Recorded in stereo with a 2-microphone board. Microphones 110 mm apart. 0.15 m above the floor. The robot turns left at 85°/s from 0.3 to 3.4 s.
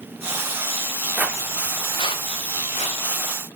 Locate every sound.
1.2 s footsteps: 15° right (ahead or behind), 0.6 m; by 3.0 s 55° left (ahead or behind), 3 m